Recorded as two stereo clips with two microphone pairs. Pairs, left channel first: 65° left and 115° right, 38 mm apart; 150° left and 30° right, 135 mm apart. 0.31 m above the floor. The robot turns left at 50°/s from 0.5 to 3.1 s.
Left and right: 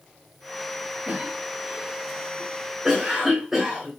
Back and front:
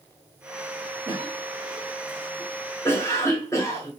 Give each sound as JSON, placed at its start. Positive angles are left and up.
{"t": 1.1, "sound": "a cough", "azimuth_deg": -80, "distance_m": 1.2}